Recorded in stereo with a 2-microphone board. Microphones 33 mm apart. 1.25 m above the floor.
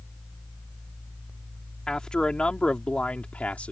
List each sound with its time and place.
1.9 s a man speaking: 20° left (ahead or behind); by 3.7 s 45° left (ahead or behind)